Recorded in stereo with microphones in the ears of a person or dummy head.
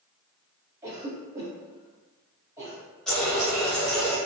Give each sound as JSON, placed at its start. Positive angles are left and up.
{"t": 0.8, "sound": "a cough", "side_deg": -20, "distance_m": 1.0}
{"t": 3.1, "sound": "a running tap", "side_deg": 5, "distance_m": 1.0}